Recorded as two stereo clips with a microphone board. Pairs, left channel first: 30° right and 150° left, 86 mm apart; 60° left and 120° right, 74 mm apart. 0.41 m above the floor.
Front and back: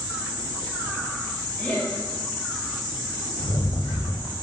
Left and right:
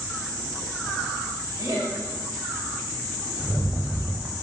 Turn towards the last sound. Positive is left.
turn(degrees=-50)